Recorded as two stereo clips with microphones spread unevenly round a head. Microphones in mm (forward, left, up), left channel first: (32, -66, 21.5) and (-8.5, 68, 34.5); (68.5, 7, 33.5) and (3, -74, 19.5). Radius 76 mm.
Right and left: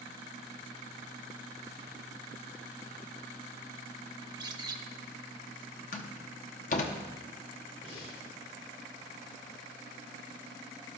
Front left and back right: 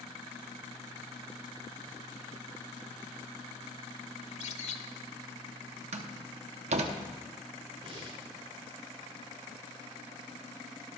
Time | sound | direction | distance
4.2 | a bird | 45° left | 1.0 m
5.9 | a door slam | 115° right | 1.0 m
7.8 | breathing | 90° right | 4.5 m